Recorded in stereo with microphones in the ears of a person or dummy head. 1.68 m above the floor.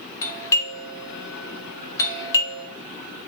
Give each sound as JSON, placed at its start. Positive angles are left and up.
{"t": 0.2, "sound": "a doorbell", "side_deg": 20, "distance_m": 1.6}